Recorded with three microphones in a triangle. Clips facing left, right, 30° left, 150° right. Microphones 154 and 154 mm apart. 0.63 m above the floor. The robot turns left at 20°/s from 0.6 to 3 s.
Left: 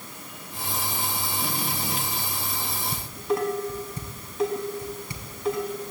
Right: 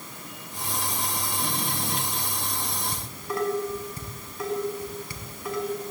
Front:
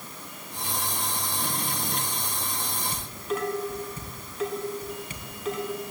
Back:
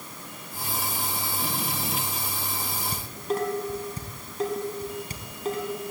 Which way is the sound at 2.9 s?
160° left.